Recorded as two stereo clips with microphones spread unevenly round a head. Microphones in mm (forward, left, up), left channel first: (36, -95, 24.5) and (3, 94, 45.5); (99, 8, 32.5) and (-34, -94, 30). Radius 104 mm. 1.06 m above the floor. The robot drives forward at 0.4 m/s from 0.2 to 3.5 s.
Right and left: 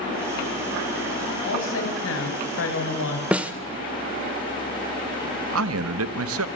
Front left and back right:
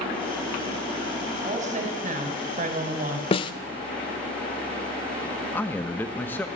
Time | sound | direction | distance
1.4 | a woman speaking | 95° right | 5.5 m
3.3 | a snare drum | 35° left | 0.8 m
5.5 | a man speaking | 120° left | 1.1 m